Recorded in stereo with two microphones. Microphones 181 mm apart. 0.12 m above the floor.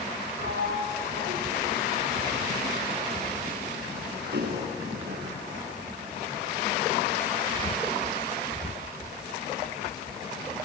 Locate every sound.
0.4 s a sliding door: 70° right (ahead or behind), 6.5 m